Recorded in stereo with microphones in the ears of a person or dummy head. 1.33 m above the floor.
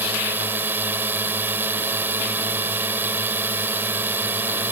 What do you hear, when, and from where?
0.0 s a drone: 10° right (ahead or behind)